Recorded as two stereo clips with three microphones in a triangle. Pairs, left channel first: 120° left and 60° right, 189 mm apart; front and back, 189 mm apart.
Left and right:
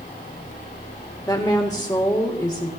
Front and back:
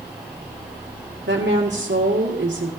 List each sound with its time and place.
1.3 s a woman speaking: 165° right, 1.9 m